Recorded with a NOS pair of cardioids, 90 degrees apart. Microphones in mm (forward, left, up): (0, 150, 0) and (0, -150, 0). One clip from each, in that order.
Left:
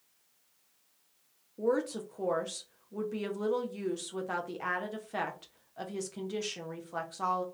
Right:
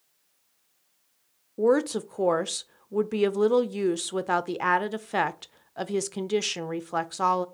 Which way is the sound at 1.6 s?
45° right.